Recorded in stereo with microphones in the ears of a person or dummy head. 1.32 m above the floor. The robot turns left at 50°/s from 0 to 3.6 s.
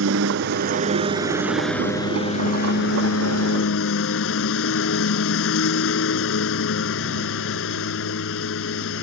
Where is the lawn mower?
95° right; by 9.0 s 85° left.